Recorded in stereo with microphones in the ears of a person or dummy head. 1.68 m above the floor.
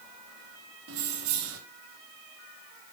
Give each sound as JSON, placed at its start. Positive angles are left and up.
{"t": 0.9, "sound": "keys jangling", "side_deg": -65, "distance_m": 1.3}